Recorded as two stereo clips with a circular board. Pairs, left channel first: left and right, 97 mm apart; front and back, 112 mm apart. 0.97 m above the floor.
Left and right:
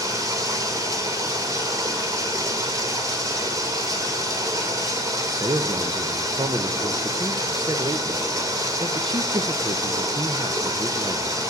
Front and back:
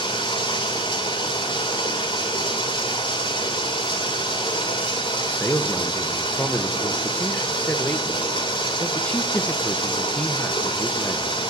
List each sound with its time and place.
0.0 s running water: 40° right, 2 m
5.2 s a man speaking: 70° right, 0.6 m